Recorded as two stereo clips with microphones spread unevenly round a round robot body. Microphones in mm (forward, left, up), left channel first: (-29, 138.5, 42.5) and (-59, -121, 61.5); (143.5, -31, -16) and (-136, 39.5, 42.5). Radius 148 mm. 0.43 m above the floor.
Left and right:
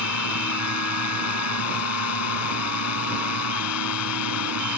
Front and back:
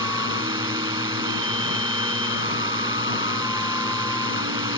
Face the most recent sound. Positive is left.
turn(degrees=90)